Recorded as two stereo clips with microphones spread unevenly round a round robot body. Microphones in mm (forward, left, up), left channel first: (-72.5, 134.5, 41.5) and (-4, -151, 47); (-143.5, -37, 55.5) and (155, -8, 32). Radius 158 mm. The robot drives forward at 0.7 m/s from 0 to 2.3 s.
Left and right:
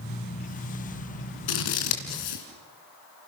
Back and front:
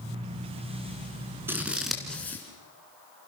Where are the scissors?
90° left, 3 m; by 2.5 s 100° left, 3 m.